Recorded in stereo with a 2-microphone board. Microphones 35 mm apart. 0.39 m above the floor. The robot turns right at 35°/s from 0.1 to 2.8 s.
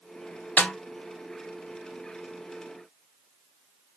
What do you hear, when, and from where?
0.6 s a snare drum: 55° left (ahead or behind), 0.7 m; by 0.7 s 50° left (ahead or behind), 0.7 m